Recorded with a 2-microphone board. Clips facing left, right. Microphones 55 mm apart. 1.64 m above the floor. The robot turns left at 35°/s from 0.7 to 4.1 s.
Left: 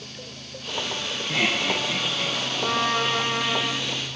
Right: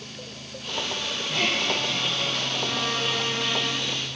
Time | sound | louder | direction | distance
1.3 | laughter | left 2 dB | 65° left (ahead or behind) | 3 m
2.6 | a violin | left 7 dB | 60° left | 1.7 m